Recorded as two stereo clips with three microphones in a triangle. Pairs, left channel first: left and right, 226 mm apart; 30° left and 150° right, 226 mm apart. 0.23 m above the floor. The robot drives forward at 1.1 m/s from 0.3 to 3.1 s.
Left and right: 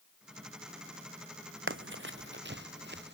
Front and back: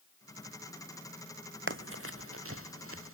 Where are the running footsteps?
120° right; by 3.2 s 130° right.